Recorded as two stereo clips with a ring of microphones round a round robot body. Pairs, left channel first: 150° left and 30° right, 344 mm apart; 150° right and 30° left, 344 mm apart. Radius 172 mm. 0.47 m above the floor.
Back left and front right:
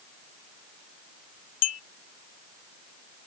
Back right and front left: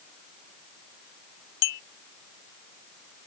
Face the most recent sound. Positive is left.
turn(degrees=-170)